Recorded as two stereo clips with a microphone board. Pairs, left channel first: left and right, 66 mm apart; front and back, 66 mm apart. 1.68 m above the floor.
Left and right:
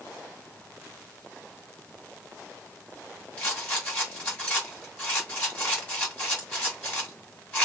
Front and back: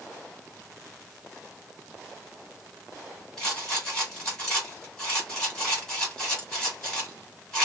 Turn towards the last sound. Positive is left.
turn(degrees=65)